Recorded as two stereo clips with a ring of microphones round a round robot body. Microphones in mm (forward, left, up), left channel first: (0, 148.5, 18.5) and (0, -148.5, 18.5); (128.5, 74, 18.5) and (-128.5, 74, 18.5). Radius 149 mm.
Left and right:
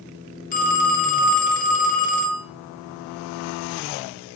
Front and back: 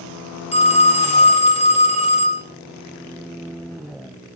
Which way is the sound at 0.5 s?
50° left.